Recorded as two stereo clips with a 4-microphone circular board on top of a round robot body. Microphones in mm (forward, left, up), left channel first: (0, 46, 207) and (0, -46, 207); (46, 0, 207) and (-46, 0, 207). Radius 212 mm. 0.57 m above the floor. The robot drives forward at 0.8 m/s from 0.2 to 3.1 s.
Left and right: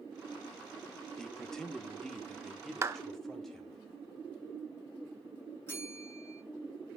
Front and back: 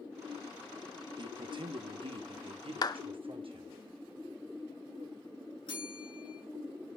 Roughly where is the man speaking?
Behind.